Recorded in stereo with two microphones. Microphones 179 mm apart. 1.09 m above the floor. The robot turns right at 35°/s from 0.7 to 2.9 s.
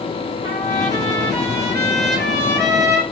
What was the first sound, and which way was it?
A trumpet, 155° right.